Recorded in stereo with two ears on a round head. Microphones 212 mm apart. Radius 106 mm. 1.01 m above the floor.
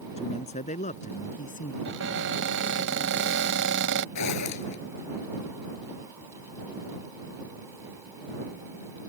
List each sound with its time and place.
0.2 s a man speaking: 25° left (ahead or behind); by 1.8 s 35° left (ahead or behind)
1.9 s a cupboard door: 55° right (ahead or behind)
4.2 s a zipper: 85° left